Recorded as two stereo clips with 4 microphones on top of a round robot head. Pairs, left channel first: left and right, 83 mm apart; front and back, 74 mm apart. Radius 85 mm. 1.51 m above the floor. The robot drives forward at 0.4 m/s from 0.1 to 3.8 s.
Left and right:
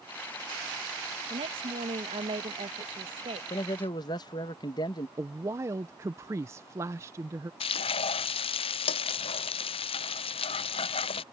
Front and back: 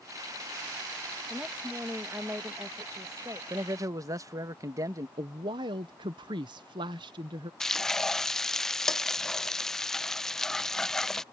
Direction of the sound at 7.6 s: 85° left.